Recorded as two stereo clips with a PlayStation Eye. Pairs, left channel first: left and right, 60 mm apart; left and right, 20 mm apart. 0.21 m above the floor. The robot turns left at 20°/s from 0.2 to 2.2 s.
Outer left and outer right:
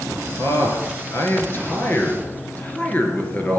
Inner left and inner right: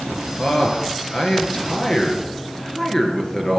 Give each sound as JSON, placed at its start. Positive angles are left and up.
{"t": 0.4, "sound": "a man speaking", "azimuth_deg": 65, "distance_m": 3.0}